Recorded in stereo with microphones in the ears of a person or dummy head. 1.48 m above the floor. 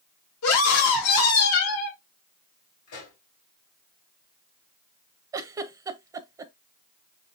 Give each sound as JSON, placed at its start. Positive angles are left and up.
{"t": 0.4, "sound": "a scream", "side_deg": 85, "distance_m": 2.5}
{"t": 2.9, "sound": "a pop", "side_deg": 80, "distance_m": 5.0}
{"t": 5.3, "sound": "a giggle", "side_deg": -15, "distance_m": 0.6}